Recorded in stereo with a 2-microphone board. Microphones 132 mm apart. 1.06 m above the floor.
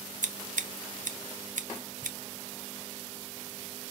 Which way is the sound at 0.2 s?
70° right (ahead or behind).